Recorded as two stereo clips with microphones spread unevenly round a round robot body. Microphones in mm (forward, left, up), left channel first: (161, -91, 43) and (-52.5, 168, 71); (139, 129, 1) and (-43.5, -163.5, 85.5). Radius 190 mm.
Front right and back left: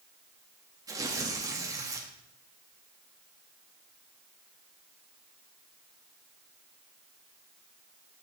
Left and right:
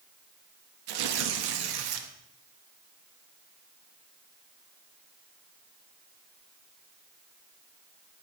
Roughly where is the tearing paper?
Behind right.